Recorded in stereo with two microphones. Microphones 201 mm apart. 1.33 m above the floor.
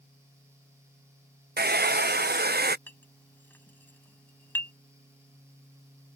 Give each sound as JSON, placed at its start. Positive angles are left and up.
{"t": 1.6, "sound": "a hair dryer", "side_deg": -55}
{"t": 2.9, "sound": "a clink", "side_deg": 10}